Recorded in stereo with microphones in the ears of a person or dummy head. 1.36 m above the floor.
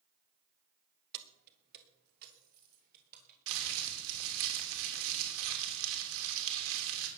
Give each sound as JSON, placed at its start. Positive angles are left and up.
{"t": 1.1, "sound": "keys jangling", "side_deg": -60, "distance_m": 1.5}
{"t": 3.5, "sound": "crumpling", "side_deg": -80, "distance_m": 3.5}